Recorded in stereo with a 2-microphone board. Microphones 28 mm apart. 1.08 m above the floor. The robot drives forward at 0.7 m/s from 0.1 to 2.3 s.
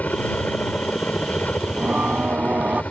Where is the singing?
45° right (ahead or behind); by 2.8 s 50° right (ahead or behind).